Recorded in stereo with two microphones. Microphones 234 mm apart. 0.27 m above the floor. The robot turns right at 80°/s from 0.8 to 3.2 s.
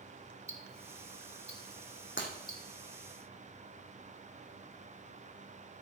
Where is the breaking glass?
55° left (ahead or behind), 2.5 m; by 2.3 s 45° left (ahead or behind), 2.5 m.